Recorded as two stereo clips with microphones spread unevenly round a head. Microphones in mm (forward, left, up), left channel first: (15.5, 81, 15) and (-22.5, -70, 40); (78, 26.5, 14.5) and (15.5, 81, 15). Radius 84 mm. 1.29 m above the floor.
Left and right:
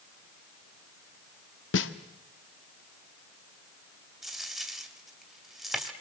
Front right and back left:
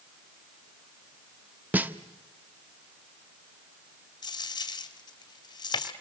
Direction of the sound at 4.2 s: 20° right.